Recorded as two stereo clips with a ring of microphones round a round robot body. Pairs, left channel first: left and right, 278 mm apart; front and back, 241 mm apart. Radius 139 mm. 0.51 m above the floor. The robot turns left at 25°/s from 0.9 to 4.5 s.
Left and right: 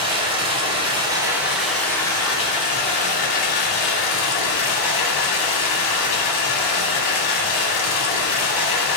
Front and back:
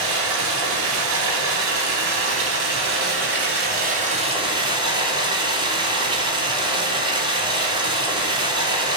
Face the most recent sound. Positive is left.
turn(degrees=110)